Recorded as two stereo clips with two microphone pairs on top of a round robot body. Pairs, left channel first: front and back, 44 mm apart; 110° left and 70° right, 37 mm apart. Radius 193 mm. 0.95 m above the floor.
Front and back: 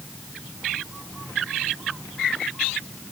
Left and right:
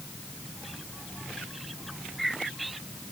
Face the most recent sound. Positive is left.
No sound to turn to.